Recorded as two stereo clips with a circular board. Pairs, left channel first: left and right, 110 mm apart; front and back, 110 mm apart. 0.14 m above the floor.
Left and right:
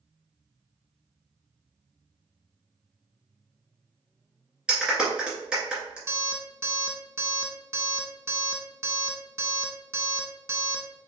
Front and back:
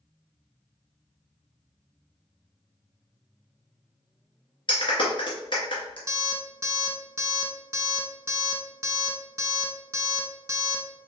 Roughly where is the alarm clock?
Behind right.